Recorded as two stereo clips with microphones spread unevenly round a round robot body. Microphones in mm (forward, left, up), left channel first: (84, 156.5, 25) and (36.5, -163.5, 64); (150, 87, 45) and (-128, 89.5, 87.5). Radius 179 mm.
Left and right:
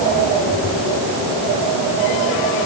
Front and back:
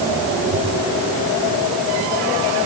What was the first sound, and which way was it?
Only background noise.